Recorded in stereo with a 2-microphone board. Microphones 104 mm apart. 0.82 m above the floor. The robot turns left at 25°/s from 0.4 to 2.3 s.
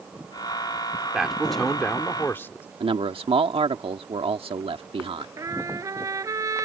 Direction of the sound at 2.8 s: 65° right (ahead or behind).